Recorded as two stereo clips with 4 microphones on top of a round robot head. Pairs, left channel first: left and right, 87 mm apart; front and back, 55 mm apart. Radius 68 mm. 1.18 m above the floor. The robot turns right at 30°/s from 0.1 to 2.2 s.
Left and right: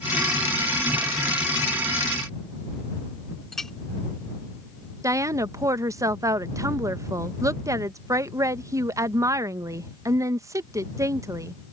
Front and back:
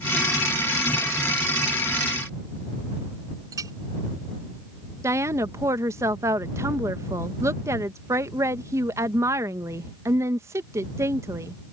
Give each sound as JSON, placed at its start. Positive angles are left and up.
{"t": 3.5, "sound": "a clink", "azimuth_deg": 175}
{"t": 5.0, "sound": "a woman speaking", "azimuth_deg": -145}